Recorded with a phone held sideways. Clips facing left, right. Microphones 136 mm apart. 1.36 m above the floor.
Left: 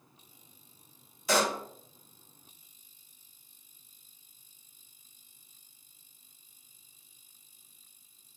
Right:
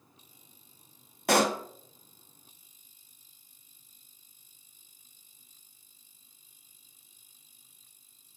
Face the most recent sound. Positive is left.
turn(degrees=-65)  # may be behind; listen again after turning